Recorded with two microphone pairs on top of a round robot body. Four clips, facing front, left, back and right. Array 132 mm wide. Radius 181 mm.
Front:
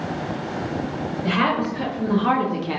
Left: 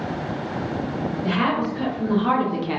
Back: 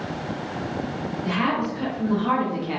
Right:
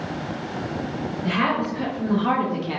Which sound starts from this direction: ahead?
A woman speaking, at 1.2 s.